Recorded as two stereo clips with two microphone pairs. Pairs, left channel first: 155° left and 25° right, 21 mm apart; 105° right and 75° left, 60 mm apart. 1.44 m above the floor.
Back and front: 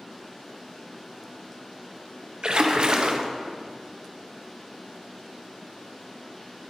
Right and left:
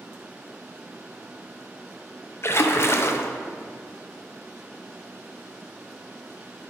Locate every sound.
2.4 s a splash: 60° right, 0.5 m